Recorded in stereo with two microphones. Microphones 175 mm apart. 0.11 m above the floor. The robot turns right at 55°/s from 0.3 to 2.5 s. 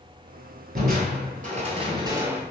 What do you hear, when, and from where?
0.8 s crushing: 100° right, 0.7 m; by 2.4 s 10° right, 0.7 m